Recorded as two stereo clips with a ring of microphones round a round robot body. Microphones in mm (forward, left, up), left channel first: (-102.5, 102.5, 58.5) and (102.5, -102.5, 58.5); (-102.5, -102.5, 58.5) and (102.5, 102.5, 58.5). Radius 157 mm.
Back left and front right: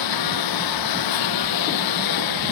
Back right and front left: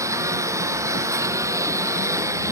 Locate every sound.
0.0 s a lawn mower: 125° left